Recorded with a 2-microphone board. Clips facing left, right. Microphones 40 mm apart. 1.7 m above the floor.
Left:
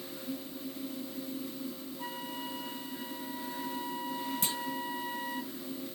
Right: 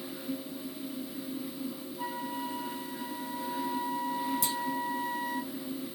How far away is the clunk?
About 0.8 m.